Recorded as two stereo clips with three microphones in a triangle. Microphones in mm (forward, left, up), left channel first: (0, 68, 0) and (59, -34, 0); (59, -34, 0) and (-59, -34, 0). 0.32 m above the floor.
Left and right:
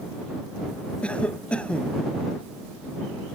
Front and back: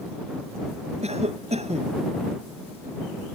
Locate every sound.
1.0 s a cough: 160° right